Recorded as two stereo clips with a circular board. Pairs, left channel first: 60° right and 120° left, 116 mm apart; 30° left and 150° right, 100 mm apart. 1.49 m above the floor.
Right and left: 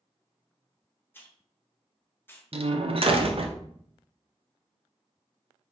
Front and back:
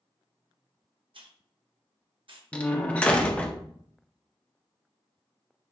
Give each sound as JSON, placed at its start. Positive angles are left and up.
{"t": 1.1, "sound": "a hiss", "azimuth_deg": -130, "distance_m": 0.7}
{"t": 2.5, "sound": "a door slam", "azimuth_deg": 105, "distance_m": 0.6}